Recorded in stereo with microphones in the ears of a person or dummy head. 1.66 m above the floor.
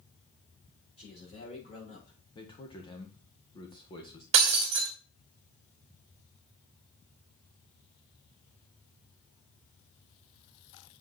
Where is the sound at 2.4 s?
25° left (ahead or behind), 1.6 m.